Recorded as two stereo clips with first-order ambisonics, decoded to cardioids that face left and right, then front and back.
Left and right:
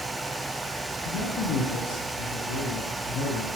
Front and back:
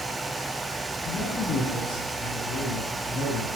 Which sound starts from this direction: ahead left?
A man speaking, at 1.1 s.